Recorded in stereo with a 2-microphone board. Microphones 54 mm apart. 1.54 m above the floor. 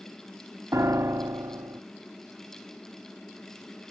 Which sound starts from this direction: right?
A piano, at 0.7 s.